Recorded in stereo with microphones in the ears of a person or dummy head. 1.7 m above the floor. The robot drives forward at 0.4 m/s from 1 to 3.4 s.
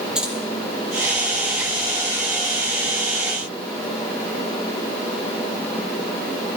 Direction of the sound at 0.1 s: 5° right (ahead or behind).